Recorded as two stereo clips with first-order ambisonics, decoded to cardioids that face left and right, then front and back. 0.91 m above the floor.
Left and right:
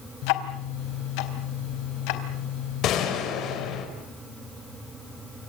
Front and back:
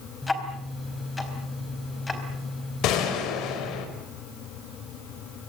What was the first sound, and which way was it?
Ticking, 80° left.